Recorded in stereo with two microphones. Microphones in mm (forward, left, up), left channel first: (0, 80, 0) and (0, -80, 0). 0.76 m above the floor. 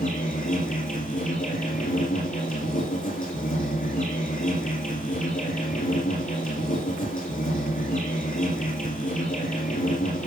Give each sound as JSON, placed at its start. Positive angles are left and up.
{"t": 0.0, "sound": "an insect", "side_deg": 65, "distance_m": 5.0}